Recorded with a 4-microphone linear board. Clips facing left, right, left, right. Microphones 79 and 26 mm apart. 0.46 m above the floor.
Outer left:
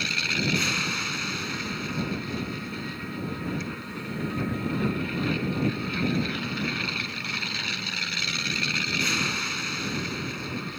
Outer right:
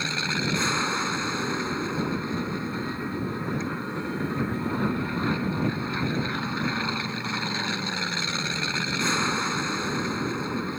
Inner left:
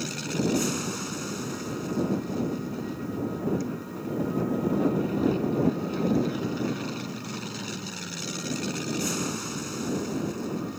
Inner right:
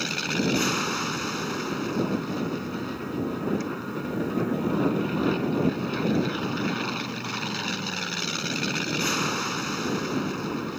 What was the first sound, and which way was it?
An aircraft, 30° right (ahead or behind).